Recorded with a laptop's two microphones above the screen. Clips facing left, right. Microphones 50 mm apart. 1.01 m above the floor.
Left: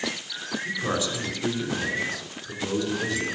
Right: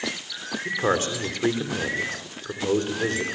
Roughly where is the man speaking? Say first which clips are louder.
Right 5 dB; right.